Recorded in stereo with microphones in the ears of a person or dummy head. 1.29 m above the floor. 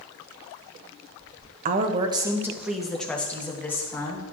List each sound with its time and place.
1.6 s a woman speaking: 45° right (ahead or behind), 0.6 m; by 4.2 s 15° left (ahead or behind), 1.6 m